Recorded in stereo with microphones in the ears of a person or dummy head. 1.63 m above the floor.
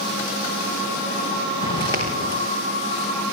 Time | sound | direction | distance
1.6 | footsteps | 25° left (ahead or behind) | 6 m